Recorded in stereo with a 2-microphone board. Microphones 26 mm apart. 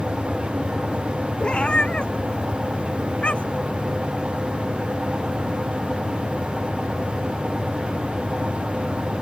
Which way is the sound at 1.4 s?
45° left (ahead or behind).